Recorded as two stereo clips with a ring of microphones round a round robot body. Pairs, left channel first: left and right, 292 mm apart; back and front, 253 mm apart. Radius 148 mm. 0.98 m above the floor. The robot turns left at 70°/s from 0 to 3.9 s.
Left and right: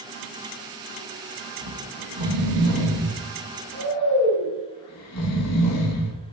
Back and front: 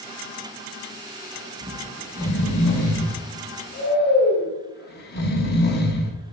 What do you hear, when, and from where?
1.6 s snoring: 70° right, 0.8 m; by 6.2 s 125° left, 0.8 m